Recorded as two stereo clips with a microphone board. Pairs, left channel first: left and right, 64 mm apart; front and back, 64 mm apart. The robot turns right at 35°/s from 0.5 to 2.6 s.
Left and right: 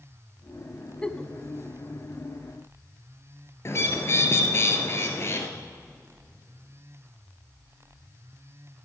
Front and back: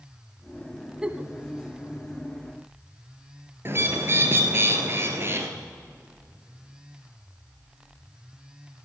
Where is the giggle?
135° left, 0.7 m; by 1.3 s 145° left, 0.7 m.